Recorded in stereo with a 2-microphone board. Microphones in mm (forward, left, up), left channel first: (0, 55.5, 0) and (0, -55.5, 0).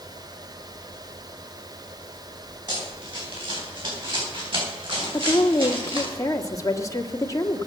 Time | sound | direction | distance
2.7 | running footsteps | 50° right (ahead or behind) | 10 m
5.1 | a woman speaking | 30° left (ahead or behind) | 1.5 m